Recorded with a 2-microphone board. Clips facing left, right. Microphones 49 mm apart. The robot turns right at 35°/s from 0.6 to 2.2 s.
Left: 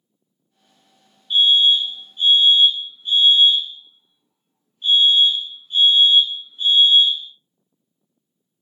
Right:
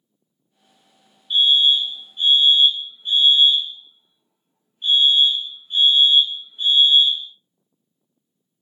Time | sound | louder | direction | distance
1.3 | a fire alarm | left 1 dB | 175° right | 2.0 m